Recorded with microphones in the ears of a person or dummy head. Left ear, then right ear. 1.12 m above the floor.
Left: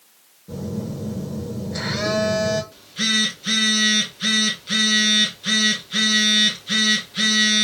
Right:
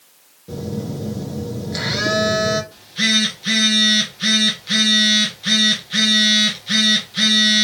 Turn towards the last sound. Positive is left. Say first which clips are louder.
# right 3 dB
turn(degrees=-15)  # may be behind; listen again after turning